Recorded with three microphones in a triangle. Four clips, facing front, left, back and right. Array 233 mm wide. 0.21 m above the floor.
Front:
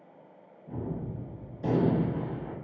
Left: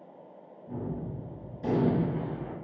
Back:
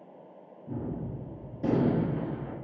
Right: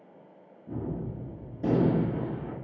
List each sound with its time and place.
0.7 s a gunshot: 150° right, 2 m